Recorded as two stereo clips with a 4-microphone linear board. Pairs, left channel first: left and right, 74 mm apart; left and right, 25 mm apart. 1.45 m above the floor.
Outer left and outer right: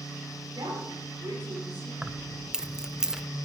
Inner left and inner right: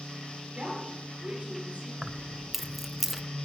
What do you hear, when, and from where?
0.5 s a woman speaking: 80° right, 5.5 m
2.0 s keys jangling: 10° right (ahead or behind), 0.5 m